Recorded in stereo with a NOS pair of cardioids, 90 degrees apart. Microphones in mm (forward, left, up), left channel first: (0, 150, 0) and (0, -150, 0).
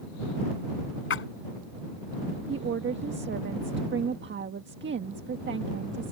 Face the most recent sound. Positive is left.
turn(degrees=-40)